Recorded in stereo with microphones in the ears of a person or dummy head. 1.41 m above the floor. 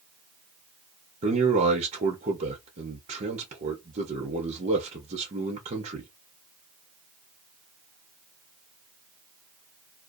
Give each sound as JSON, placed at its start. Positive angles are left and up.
{"t": 1.2, "sound": "a man speaking", "side_deg": -30, "distance_m": 0.5}